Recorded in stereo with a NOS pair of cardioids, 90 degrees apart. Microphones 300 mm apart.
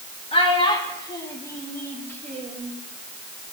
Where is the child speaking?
20° left, 2.5 m; by 2.7 s 5° left, 4 m.